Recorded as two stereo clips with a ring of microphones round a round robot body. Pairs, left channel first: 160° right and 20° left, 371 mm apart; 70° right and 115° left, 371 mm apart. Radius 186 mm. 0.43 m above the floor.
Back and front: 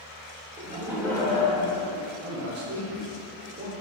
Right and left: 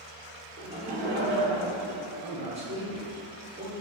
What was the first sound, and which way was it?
Laughter, 50° left.